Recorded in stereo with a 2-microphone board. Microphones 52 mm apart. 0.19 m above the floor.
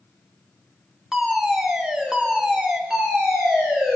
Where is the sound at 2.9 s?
10° right (ahead or behind), 5 m.